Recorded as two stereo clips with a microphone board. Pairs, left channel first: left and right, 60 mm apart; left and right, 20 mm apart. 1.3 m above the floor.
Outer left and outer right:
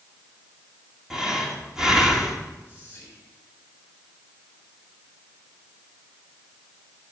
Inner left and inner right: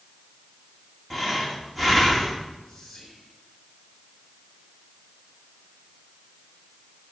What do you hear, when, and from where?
1.1 s breathing: 10° right (ahead or behind), 2 m
2.7 s whispering: 25° left (ahead or behind), 6.5 m